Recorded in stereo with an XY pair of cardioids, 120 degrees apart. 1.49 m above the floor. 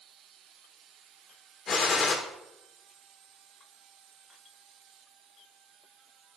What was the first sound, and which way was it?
A gunshot, 45° left.